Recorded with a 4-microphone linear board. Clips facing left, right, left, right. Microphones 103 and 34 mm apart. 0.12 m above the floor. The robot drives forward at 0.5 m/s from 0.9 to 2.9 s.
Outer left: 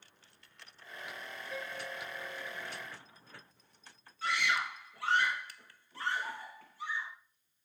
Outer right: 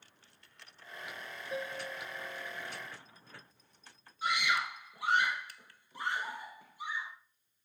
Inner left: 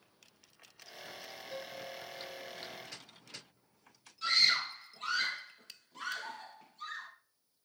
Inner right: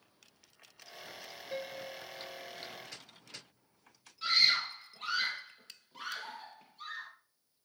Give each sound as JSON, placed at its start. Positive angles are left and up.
{"t": 1.5, "sound": "a piano", "side_deg": -25, "distance_m": 0.5}
{"t": 4.2, "sound": "a scream", "side_deg": -15, "distance_m": 4.0}